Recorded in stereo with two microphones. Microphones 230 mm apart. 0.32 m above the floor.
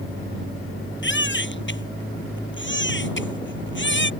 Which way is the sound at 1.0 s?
55° left (ahead or behind).